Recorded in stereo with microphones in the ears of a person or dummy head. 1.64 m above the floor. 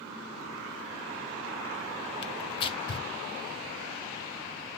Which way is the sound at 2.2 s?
30° left (ahead or behind).